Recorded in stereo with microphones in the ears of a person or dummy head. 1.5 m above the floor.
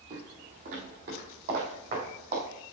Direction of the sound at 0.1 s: 40° right (ahead or behind).